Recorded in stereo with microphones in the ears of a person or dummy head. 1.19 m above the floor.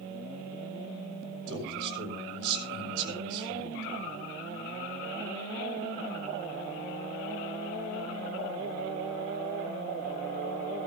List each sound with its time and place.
1.5 s a man speaking: 65° right (ahead or behind), 6 m